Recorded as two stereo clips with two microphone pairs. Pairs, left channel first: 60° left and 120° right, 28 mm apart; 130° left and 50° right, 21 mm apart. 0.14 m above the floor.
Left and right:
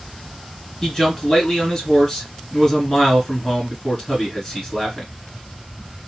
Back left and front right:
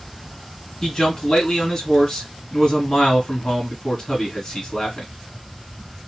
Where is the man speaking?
115° left, 1.8 m.